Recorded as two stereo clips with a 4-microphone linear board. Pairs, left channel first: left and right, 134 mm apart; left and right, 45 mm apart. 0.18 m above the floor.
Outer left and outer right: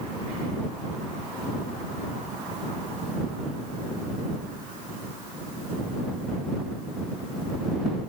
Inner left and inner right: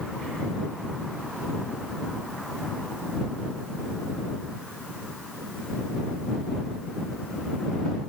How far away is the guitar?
No guitar in this recording.